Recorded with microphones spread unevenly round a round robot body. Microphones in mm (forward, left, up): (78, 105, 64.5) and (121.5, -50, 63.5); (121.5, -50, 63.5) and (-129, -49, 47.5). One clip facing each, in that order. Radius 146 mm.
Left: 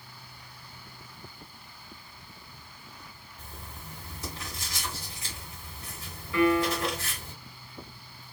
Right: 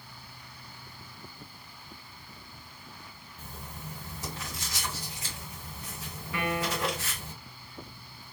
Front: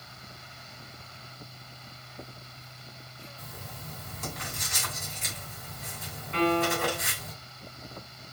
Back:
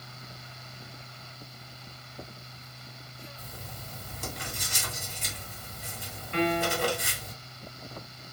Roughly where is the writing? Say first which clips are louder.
Right 3 dB, even; behind right.